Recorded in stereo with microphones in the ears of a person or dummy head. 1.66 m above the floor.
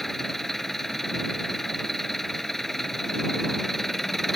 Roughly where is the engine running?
Centre.